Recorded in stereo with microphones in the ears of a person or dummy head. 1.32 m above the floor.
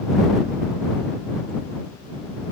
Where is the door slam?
I don't hear a door slam.